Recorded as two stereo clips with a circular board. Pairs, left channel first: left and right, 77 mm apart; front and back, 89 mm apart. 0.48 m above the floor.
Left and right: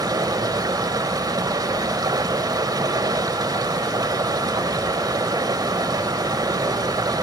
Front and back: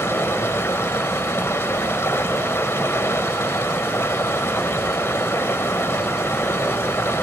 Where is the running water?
60° right, 1.2 m.